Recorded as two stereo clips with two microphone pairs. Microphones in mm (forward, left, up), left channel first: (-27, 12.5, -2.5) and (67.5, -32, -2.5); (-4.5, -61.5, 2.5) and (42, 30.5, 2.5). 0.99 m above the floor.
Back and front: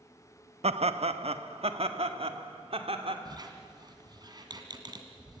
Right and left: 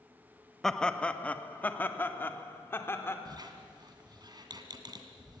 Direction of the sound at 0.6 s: 30° right.